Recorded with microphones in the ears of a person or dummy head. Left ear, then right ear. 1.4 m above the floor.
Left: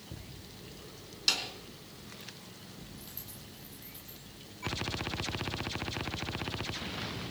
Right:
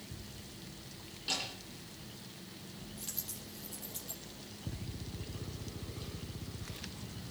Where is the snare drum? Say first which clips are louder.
Left 6 dB; 75° left (ahead or behind), 4 m.